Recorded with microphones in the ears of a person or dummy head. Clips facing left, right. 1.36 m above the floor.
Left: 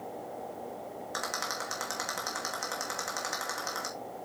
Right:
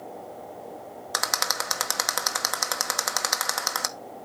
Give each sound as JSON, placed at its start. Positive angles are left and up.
{"t": 1.1, "sound": "a rattle", "side_deg": -80, "distance_m": 0.9}